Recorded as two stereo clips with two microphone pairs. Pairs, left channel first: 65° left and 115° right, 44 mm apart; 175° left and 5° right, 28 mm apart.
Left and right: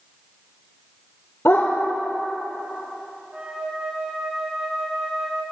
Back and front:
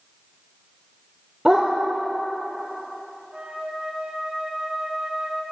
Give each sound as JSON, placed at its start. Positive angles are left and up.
{"t": 1.4, "sound": "a dog barking", "azimuth_deg": 60, "distance_m": 3.0}
{"t": 3.3, "sound": "a flute", "azimuth_deg": -55, "distance_m": 3.5}